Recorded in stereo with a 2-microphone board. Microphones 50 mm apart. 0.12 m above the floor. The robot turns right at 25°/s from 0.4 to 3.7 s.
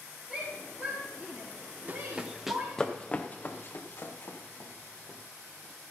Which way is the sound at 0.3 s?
30° right (ahead or behind).